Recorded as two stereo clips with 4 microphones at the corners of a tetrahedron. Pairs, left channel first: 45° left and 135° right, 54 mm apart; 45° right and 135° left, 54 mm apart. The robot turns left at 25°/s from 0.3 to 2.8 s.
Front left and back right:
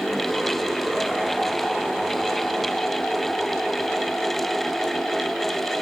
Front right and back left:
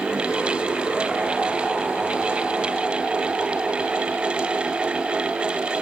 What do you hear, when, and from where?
Only background noise.